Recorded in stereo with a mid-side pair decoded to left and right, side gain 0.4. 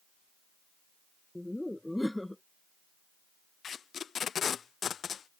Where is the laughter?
10° left.